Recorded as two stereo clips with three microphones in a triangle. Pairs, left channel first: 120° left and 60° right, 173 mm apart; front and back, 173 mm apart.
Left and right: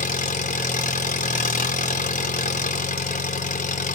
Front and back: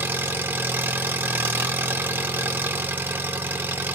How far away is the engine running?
About 0.8 m.